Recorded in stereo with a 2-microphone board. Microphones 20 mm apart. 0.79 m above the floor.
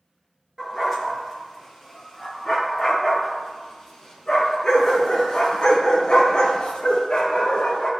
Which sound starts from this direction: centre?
A dog barking, at 0.6 s.